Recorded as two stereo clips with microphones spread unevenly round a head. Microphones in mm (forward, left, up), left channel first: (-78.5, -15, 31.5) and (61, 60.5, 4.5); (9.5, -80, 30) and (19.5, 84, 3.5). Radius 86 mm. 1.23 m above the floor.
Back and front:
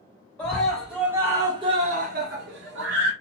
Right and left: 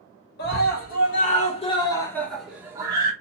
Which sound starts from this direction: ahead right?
A scream, at 0.4 s.